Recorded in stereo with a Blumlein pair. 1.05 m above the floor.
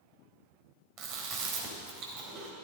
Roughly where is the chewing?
Ahead right.